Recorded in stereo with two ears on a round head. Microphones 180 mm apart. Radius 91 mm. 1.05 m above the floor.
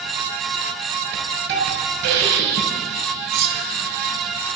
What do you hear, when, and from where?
1.1 s a hiss: 60° right (ahead or behind), 6 m
3.3 s cutlery clinking: 50° right (ahead or behind), 2.0 m